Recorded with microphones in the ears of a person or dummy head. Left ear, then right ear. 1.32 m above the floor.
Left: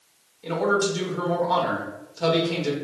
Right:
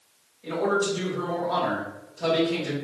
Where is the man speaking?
75° left (ahead or behind), 1.3 m.